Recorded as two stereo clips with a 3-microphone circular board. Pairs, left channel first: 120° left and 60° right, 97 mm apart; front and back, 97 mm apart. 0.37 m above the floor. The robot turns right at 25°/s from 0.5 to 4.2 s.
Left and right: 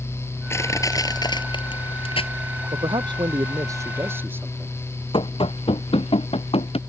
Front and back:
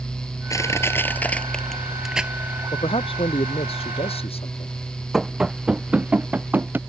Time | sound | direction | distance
0.5 | crushing | 55° left | ?
2.7 | a man speaking | 30° right | ?
5.1 | running footsteps | 95° left | ?